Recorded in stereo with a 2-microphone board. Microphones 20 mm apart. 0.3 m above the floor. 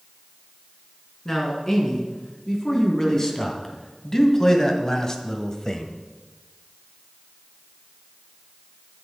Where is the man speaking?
15° left (ahead or behind), 3.5 m; by 5.9 s 25° left (ahead or behind), 1.4 m.